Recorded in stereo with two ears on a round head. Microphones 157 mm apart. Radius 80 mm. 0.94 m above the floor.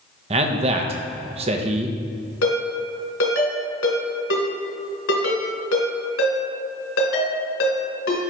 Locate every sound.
0.3 s a man speaking: 35° right (ahead or behind), 0.8 m
2.4 s a ringtone: 80° left, 2.5 m